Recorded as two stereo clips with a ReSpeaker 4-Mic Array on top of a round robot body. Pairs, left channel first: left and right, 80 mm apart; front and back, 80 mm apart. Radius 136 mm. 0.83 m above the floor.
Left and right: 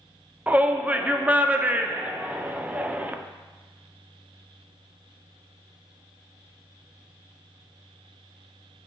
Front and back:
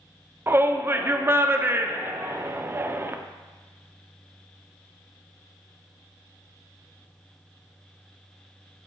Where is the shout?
145° right, 0.5 m.